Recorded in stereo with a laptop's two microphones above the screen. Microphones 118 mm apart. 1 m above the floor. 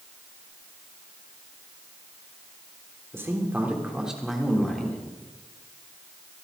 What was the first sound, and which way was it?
A man speaking, 20° right (ahead or behind).